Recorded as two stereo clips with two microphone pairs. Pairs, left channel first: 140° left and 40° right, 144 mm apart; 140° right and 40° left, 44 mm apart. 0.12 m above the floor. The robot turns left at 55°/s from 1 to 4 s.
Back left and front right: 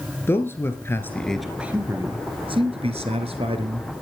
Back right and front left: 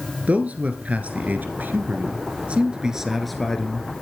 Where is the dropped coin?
I don't hear a dropped coin.